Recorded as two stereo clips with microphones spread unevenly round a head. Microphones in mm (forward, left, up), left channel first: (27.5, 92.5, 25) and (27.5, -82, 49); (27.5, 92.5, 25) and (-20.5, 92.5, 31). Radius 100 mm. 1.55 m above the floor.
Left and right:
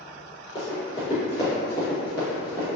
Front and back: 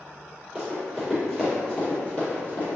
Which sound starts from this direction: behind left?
Running footsteps, at 0.6 s.